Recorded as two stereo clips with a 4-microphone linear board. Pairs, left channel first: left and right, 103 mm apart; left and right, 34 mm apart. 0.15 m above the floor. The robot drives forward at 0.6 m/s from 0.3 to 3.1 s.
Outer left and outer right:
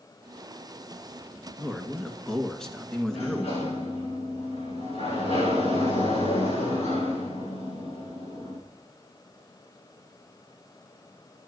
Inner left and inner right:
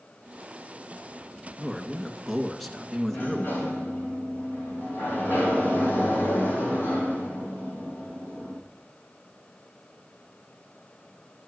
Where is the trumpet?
I don't hear a trumpet.